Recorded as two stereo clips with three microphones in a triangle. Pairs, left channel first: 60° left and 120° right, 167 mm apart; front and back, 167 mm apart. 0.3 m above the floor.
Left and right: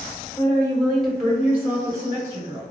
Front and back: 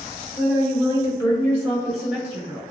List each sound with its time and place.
0.3 s a woman speaking: 5° right, 1.2 m; by 2.6 s 130° right, 1.1 m